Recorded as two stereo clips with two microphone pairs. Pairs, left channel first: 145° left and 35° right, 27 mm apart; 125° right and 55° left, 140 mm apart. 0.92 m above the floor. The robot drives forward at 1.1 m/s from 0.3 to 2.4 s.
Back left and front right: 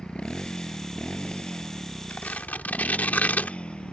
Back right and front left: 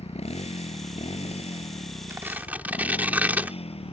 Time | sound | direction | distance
0.0 | a motorcycle | 170° right | ?
2.1 | tearing paper | 125° left | ?